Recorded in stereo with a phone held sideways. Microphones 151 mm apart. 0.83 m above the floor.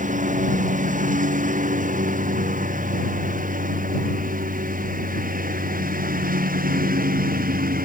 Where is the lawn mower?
60° right (ahead or behind); by 7.9 s 75° right (ahead or behind).